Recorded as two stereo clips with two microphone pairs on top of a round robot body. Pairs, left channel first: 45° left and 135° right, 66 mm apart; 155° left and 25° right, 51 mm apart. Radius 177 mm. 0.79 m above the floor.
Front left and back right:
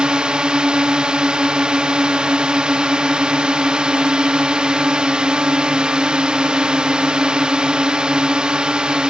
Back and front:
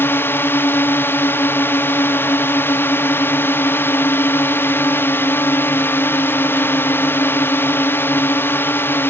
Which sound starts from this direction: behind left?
A drone, at 0.0 s.